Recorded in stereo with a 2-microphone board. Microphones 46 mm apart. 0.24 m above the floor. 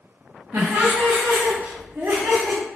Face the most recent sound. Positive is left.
turn(degrees=-60)  # may be behind; listen again after turning